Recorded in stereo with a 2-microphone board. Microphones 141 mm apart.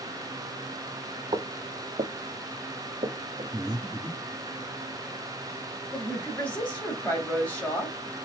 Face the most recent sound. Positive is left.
turn(degrees=10)  # may be behind; listen again after turning